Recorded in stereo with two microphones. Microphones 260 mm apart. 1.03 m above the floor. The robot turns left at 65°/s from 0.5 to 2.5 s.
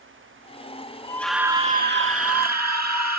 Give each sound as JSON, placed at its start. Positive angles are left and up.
{"t": 1.0, "sound": "a scream", "azimuth_deg": 15}